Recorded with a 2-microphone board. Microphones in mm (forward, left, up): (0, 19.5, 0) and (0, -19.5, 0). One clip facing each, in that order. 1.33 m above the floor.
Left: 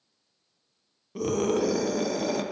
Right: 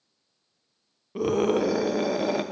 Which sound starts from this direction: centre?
A scream, at 1.1 s.